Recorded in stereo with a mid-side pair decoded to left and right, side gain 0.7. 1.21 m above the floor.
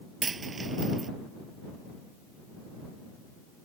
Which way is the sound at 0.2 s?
25° right.